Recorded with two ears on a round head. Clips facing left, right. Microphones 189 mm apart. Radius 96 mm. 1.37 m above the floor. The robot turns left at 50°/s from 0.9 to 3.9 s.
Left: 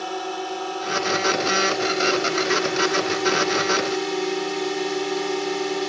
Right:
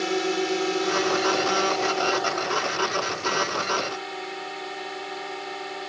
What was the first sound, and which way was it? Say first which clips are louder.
A drone: right 4 dB; 150° right.